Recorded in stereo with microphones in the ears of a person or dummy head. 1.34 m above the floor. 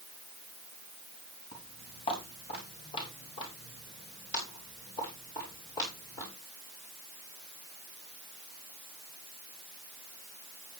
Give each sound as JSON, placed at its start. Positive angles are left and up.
{"t": 1.5, "sound": "footsteps", "side_deg": 35, "distance_m": 7.5}